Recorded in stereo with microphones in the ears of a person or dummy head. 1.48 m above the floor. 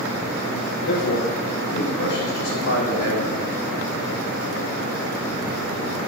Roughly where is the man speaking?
Left.